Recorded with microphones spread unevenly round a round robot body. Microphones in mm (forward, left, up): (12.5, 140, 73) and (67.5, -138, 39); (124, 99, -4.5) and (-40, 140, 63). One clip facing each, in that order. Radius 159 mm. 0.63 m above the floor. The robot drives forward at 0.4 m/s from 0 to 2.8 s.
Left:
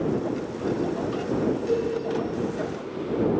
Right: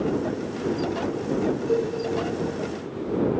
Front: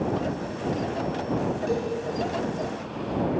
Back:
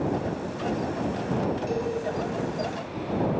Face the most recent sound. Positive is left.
turn(degrees=90)